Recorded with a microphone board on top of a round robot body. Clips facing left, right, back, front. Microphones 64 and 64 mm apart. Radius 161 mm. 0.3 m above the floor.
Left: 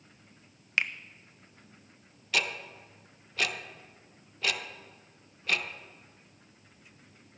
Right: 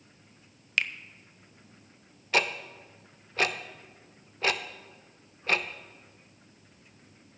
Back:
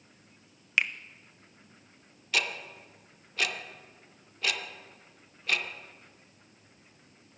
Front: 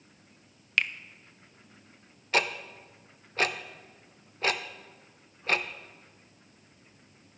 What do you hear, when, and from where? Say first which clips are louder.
0.8 s a finger snap: even, even; 125° left, 0.8 m
2.3 s ticking: right 4 dB, front 3 dB; 40° right, 0.8 m